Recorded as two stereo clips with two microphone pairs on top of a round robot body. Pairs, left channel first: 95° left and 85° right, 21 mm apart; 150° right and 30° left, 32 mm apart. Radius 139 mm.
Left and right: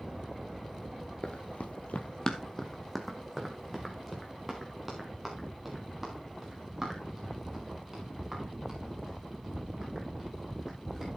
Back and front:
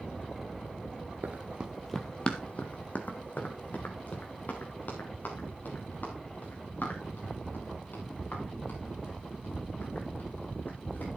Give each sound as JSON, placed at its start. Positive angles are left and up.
{"t": 1.2, "sound": "running footsteps", "azimuth_deg": 55, "distance_m": 0.7}